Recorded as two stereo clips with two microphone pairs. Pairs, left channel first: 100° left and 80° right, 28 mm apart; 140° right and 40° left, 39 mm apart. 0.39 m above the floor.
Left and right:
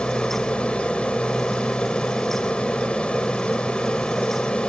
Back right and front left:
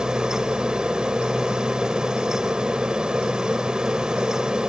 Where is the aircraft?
95° left.